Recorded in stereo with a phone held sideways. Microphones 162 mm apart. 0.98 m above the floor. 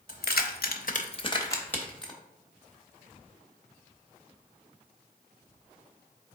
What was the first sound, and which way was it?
Keys jangling, 70° left (ahead or behind).